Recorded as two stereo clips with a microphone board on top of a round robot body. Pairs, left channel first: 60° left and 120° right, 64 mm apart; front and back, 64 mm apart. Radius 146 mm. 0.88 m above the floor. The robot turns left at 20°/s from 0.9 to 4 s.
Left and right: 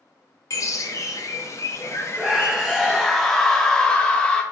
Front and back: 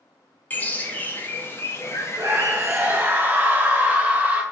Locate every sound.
0.5 s a bird: 55° left, 0.7 m; by 3.0 s 10° left, 0.7 m
2.2 s a scream: 160° left, 0.6 m; by 4.4 s 125° left, 0.6 m